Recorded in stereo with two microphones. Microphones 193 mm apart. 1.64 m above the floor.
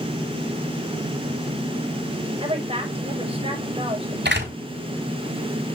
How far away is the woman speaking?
About 6.5 m.